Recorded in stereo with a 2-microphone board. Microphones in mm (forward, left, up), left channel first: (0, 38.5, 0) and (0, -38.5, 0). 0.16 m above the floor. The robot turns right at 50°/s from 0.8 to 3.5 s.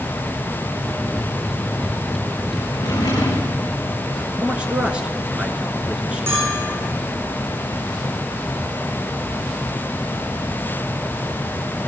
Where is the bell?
30° right (ahead or behind), 6.5 m.